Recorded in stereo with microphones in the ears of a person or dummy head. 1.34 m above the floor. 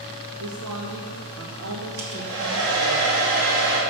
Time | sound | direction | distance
0.4 | a woman speaking | 85° right | 1.4 m
2.0 | a hair dryer | 70° right (ahead or behind) | 2.5 m